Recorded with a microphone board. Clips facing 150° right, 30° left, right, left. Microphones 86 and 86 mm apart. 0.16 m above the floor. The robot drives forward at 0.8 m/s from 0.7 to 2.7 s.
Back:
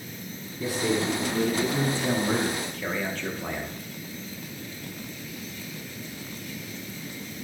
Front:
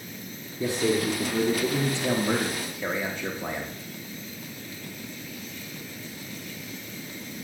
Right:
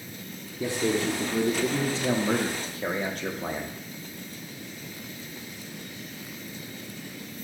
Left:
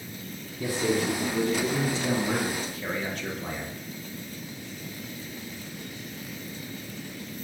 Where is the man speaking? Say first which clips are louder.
Front 2 dB, even; 30° right, 4.5 m; by 3.8 s 45° right, 3.5 m.